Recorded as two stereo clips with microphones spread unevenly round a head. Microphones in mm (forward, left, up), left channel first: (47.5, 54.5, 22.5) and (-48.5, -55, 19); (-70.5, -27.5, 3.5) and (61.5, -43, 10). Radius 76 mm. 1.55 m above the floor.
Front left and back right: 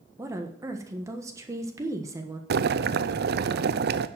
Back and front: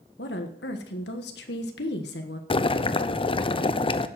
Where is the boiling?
135° right, 0.7 m.